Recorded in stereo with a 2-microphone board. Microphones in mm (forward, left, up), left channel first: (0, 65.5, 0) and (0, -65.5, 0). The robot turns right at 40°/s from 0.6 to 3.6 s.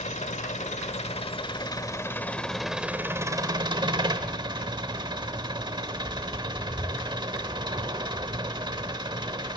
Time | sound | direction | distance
0.0 | an engine running | 100° left | 1.0 m